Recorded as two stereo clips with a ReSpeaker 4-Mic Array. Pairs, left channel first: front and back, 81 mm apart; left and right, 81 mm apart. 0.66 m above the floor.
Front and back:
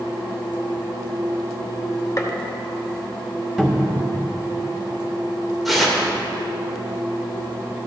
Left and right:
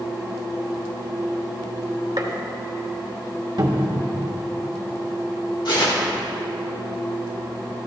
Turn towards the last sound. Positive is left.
turn(degrees=90)